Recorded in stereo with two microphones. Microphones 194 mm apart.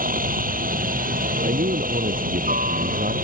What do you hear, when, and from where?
0.0 s a helicopter: 45° right (ahead or behind)
1.4 s a man speaking: 45° right (ahead or behind)